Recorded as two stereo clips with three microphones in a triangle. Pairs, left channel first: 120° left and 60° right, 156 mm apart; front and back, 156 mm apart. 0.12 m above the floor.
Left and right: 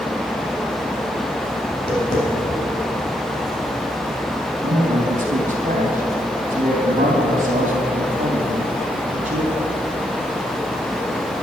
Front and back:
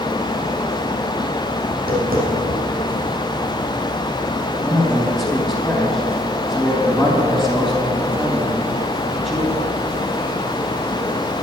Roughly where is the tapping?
Behind.